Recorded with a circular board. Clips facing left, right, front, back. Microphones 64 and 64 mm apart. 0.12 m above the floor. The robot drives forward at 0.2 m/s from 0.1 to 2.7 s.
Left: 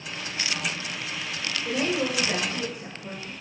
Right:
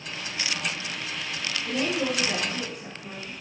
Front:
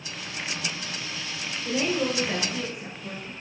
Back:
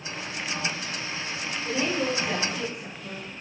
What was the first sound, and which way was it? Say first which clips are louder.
A woman speaking: left 1 dB, front 1 dB; 105° left.